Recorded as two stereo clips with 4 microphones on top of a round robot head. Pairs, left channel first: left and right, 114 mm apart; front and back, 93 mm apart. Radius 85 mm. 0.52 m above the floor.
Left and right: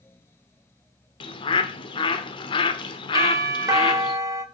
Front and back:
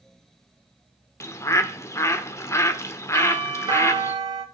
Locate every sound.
1.2 s a bird: 55° left, 1.5 m
3.1 s a doorbell: 145° right, 2 m